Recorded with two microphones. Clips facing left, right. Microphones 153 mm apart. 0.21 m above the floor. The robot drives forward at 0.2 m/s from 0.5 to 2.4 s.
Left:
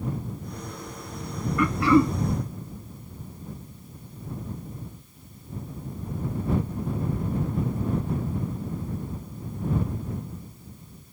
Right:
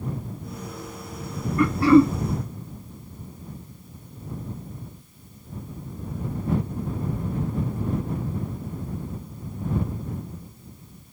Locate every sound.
1.6 s throat clearing: 35° right (ahead or behind), 0.8 m; by 2.2 s 30° right (ahead or behind), 0.8 m